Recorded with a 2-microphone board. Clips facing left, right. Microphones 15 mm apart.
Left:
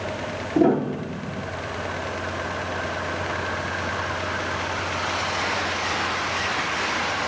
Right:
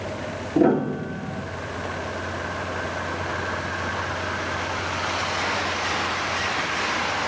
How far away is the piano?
About 1.3 m.